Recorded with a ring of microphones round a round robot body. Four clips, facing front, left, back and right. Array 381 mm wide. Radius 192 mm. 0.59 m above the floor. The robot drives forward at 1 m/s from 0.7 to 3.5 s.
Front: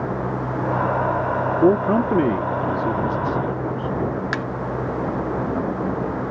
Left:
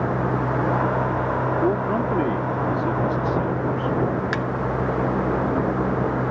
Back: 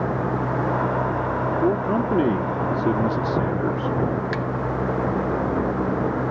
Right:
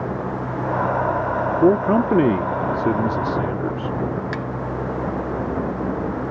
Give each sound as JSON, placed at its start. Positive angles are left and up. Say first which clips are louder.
{"t": 1.6, "sound": "a man speaking", "louder": "right 10 dB, front 6 dB", "azimuth_deg": -50}
{"t": 4.3, "sound": "a thud", "louder": "left 2 dB, even", "azimuth_deg": 25}